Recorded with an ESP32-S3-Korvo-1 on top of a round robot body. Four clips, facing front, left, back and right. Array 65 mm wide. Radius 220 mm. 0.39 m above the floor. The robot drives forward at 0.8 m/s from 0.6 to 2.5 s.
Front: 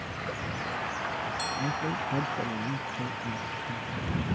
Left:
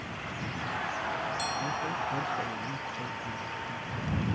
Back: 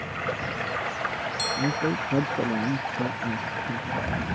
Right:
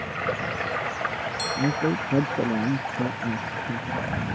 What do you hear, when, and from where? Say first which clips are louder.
0.0 s running water: right 10 dB, back 5 dB; 115° right; by 4.4 s 135° right
1.6 s a man speaking: right 7 dB, back 8 dB; 115° right; by 4.1 s 120° right